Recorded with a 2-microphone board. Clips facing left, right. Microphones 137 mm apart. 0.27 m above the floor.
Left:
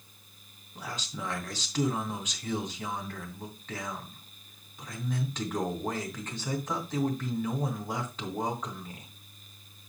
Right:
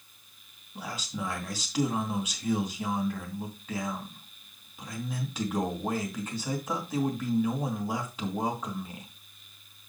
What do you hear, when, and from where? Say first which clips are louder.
0.8 s a man speaking: right 3 dB; 10° right (ahead or behind), 2.5 m